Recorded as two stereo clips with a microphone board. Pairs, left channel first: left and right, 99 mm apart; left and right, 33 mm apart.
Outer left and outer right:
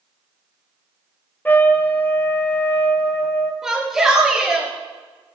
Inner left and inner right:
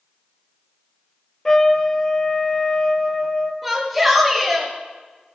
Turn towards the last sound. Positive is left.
turn(degrees=-5)  # may be behind; listen again after turning